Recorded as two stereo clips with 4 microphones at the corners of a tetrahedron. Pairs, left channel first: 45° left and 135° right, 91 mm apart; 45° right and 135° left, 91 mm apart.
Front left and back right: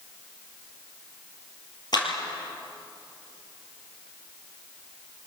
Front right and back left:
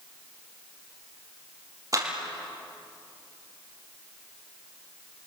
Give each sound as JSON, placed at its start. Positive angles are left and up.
{"t": 1.9, "sound": "a clap", "azimuth_deg": 85, "distance_m": 5.5}